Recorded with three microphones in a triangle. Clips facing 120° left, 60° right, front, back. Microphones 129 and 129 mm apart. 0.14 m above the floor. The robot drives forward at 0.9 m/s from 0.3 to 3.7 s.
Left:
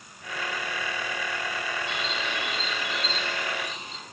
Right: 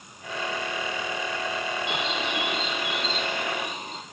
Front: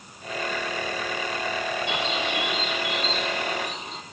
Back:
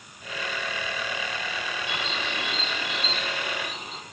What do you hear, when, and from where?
1.9 s a bird: 70° right, 4 m; by 4.0 s 95° right, 3.5 m